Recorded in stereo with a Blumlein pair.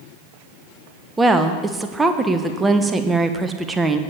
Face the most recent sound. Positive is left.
turn(degrees=-10)